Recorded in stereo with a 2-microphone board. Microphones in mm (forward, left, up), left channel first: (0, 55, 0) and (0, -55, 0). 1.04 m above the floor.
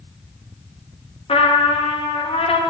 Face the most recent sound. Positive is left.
turn(degrees=60)  # may be behind; listen again after turning